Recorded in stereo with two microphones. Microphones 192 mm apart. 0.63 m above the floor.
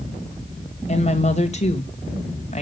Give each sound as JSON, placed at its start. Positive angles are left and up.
{"t": 0.9, "sound": "a woman speaking", "side_deg": 35, "distance_m": 2.5}